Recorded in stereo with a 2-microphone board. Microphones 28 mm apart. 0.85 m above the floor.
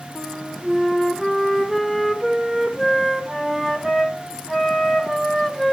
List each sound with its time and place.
0.1 s a flute: 5° left (ahead or behind), 1.0 m